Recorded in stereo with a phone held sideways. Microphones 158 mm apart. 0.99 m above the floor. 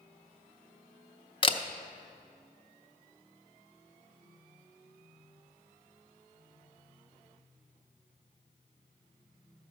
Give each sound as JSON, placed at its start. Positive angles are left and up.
{"t": 1.4, "sound": "a camera shutter", "side_deg": 35, "distance_m": 0.5}